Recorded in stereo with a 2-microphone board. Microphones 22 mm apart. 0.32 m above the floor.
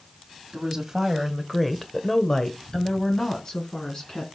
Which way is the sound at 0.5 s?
20° right (ahead or behind).